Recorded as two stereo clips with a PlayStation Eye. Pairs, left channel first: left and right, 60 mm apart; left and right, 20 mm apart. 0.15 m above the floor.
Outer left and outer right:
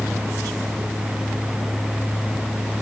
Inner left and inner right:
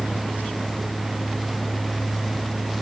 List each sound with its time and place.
Only background noise.